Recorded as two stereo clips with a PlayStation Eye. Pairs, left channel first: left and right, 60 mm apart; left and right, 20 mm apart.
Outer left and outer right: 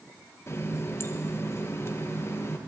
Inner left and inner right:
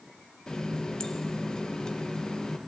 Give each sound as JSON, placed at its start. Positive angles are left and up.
{"t": 0.5, "sound": "a running tap", "side_deg": 45, "distance_m": 0.9}